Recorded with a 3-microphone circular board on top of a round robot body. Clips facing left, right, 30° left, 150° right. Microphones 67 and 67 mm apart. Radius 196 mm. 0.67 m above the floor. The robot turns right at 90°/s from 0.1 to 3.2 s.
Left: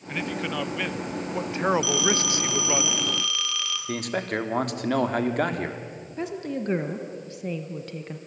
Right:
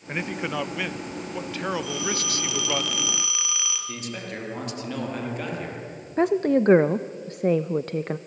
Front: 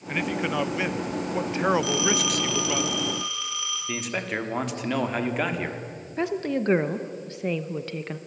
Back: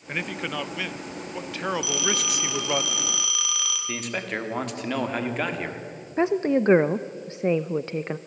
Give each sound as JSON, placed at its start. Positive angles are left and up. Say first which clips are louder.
{"t": 0.1, "sound": "a man speaking", "louder": "right 1 dB, front 4 dB", "azimuth_deg": -70, "distance_m": 0.9}
{"t": 1.8, "sound": "a phone ringing", "louder": "left 4 dB, front 3 dB", "azimuth_deg": 75, "distance_m": 3.5}
{"t": 3.9, "sound": "a man speaking", "louder": "left 6 dB, front 1 dB", "azimuth_deg": 120, "distance_m": 2.5}
{"t": 6.2, "sound": "a woman speaking", "louder": "right 11 dB, back 5 dB", "azimuth_deg": -90, "distance_m": 0.8}